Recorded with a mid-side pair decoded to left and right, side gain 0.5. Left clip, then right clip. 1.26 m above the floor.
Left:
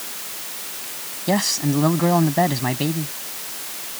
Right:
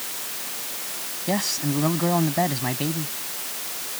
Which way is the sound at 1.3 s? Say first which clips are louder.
Left 5 dB; 30° left.